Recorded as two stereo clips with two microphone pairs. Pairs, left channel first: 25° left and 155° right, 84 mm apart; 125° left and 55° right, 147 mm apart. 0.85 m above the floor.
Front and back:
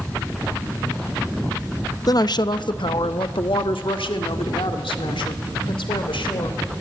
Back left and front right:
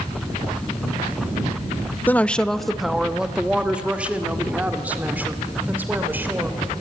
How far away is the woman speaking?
About 0.6 m.